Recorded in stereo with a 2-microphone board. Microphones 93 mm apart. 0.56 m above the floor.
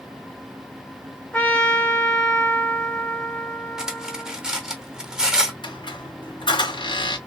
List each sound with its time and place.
1.3 s a trumpet: 15° left (ahead or behind), 1.7 m
3.8 s cutlery clinking: 10° right (ahead or behind), 0.8 m
5.6 s a squeak: 60° left (ahead or behind), 1.7 m